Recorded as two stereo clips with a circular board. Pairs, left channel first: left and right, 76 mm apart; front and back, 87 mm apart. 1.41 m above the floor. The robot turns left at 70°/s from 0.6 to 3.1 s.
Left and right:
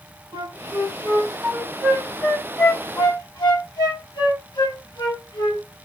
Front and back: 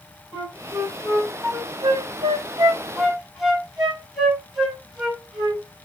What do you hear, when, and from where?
0.3 s a flute: 95° right, 6.5 m; by 5.6 s 90° left, 6.5 m